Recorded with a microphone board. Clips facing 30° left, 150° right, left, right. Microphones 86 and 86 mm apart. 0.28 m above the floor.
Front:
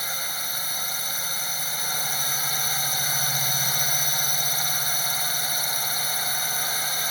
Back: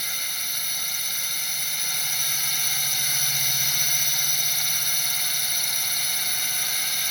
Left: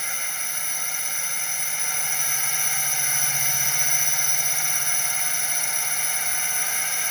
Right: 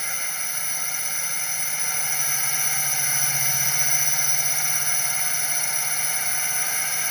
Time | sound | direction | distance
0.0 | a drone | straight ahead | ?